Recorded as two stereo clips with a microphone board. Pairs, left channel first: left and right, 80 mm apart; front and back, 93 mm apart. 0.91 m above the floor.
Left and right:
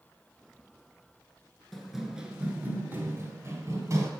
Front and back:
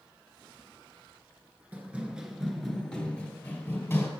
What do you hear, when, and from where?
1.7 s running footsteps: 165° left, 0.9 m; by 4.1 s 60° right, 1.4 m